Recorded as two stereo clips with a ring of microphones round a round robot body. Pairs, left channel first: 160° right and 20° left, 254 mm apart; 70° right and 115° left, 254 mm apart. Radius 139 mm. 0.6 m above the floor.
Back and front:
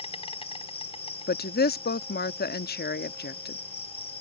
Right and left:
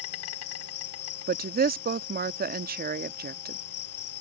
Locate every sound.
0.0 s an insect: 90° right
1.3 s a woman speaking: 160° left